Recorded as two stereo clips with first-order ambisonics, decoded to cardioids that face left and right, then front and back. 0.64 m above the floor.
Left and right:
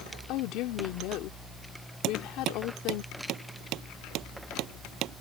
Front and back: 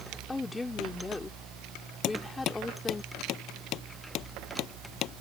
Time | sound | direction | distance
0.3 | a woman speaking | 80° left | ?
2.0 | hammering | 45° right | ?